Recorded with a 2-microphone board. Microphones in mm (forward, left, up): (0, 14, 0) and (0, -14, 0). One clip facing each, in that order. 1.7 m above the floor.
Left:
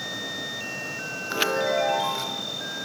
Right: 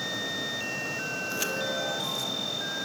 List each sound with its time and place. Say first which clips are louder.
1.3 s a chime: left 10 dB; 45° left (ahead or behind), 0.6 m